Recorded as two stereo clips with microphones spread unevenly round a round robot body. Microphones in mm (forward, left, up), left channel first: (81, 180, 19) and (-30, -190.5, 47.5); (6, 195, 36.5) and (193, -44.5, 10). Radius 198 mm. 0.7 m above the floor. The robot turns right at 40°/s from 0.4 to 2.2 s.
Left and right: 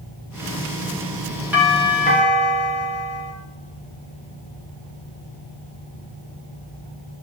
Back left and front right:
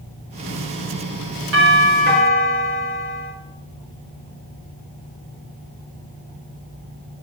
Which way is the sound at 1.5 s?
20° right.